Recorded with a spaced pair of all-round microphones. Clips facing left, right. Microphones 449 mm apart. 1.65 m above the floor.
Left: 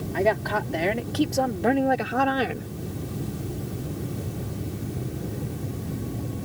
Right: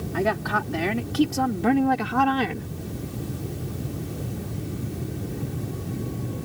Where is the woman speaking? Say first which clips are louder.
Left 1 dB; 25° right (ahead or behind); by 2.7 s 15° right (ahead or behind).